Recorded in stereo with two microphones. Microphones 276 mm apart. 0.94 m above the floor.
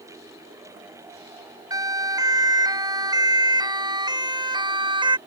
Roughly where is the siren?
Centre.